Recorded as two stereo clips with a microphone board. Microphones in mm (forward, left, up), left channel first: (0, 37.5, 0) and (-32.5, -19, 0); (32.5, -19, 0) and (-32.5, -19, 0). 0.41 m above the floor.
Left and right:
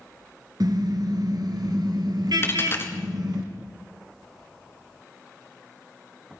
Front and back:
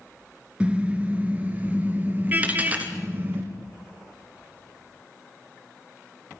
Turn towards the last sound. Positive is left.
turn(degrees=115)